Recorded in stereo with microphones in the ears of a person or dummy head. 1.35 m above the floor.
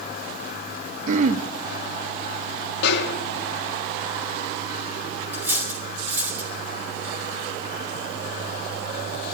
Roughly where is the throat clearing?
Right.